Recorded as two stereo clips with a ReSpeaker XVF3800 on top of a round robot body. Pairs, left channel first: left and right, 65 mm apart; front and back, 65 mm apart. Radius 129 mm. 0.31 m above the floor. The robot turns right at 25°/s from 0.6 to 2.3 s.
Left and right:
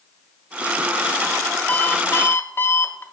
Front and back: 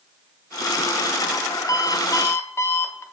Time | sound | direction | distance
1.7 | an alarm clock | 25° left | 1.3 m